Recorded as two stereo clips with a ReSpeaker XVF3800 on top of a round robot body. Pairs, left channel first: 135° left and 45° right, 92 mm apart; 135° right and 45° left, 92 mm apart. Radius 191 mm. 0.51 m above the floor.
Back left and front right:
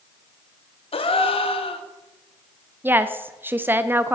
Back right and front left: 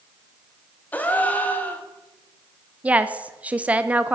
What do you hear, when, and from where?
0.9 s a gasp: 150° left, 0.9 m
2.8 s a woman speaking: 10° right, 0.9 m